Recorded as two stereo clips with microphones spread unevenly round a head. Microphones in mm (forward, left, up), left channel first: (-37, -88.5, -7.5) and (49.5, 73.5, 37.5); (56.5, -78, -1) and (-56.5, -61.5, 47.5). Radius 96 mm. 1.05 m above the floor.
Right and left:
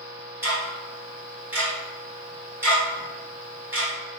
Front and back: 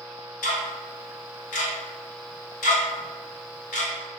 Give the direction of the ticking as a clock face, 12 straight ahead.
12 o'clock.